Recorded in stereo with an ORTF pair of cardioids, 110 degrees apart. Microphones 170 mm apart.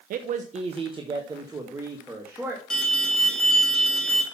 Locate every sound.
0.1 s a man speaking: 60° right, 0.8 m; by 2.6 s 10° right, 2.5 m
2.7 s an alarm: 5° left, 2.5 m